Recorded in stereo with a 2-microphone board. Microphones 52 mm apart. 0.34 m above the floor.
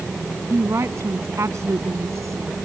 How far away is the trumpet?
No trumpet in this recording.